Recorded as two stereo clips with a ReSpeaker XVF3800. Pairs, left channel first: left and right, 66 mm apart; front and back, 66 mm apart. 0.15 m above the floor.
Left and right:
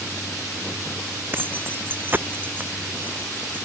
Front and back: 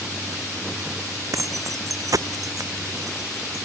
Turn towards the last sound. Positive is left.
turn(degrees=-150)